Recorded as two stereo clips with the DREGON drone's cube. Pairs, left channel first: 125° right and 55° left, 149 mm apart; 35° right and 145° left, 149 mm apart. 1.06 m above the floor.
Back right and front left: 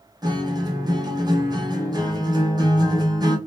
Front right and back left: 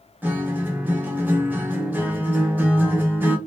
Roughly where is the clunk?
I don't hear a clunk.